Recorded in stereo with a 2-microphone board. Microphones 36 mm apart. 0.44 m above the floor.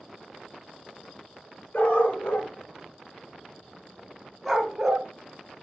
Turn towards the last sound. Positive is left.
turn(degrees=-10)  # may be behind; listen again after turning